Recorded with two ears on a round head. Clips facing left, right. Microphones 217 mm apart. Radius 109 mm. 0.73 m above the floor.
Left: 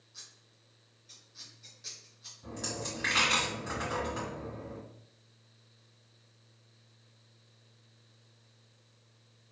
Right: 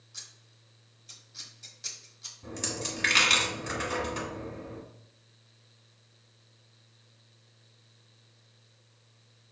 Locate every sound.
0.1 s scissors: 70° right (ahead or behind), 1.5 m
2.4 s a dropped coin: 45° right (ahead or behind), 2.0 m